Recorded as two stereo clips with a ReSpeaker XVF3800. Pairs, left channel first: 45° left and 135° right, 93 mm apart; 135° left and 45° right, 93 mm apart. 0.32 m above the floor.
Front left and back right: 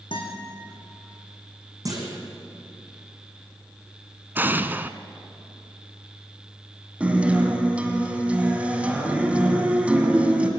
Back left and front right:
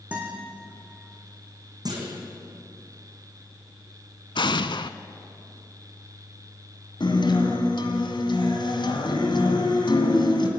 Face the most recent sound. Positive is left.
turn(degrees=150)